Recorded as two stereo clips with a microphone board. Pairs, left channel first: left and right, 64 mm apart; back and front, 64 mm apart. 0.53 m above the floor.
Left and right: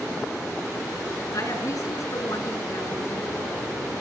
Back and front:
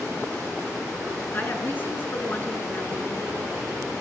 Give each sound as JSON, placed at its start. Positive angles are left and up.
{"t": 1.3, "sound": "a woman speaking", "azimuth_deg": 120, "distance_m": 6.0}